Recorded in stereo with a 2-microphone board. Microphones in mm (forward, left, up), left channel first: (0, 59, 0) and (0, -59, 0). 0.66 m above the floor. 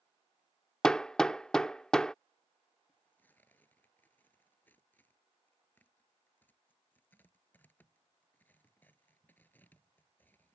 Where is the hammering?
5° left (ahead or behind).